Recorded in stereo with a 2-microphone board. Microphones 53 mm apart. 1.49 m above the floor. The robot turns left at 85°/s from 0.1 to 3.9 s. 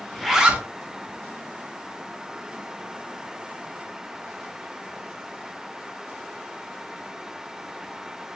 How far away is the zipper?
About 0.6 m.